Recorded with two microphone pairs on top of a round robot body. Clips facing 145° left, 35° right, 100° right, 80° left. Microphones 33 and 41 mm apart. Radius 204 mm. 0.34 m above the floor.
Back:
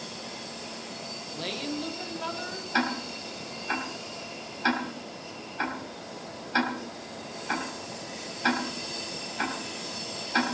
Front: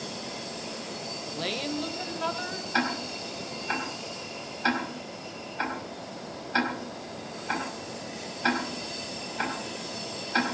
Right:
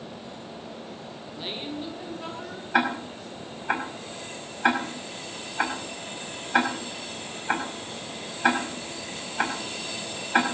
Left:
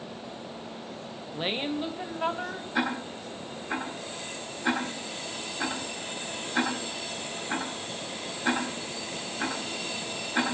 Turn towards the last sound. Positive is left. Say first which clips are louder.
# even, right 6 dB
turn(degrees=-120)